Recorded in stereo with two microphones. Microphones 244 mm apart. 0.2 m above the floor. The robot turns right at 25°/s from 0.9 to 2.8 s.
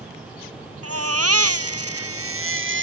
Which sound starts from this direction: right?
A baby crying, at 0.8 s.